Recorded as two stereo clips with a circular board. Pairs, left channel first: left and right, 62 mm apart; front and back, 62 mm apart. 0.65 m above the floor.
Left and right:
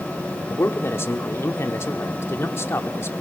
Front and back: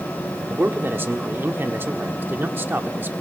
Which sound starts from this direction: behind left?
A man speaking, at 0.5 s.